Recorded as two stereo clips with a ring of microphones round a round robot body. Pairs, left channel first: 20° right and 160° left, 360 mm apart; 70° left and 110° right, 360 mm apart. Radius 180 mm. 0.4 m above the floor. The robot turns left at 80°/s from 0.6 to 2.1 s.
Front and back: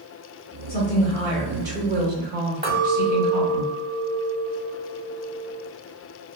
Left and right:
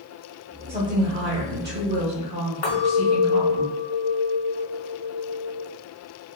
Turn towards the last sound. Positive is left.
turn(degrees=85)